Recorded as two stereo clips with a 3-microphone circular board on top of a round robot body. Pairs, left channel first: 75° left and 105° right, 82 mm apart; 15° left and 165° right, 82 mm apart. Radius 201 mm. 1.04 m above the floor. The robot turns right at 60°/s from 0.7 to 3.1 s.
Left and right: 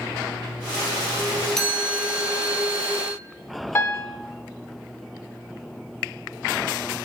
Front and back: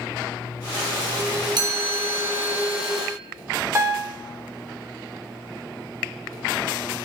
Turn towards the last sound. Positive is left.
turn(degrees=135)